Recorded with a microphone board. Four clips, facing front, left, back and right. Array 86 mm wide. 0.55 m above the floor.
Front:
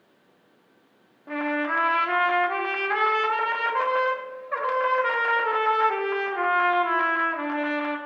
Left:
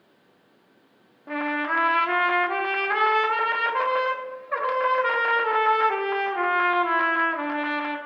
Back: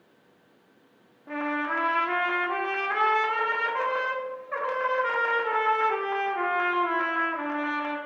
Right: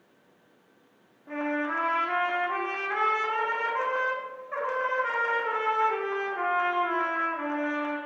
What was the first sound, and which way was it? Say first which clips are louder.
A trumpet: left 3 dB, front 3 dB; 70° left.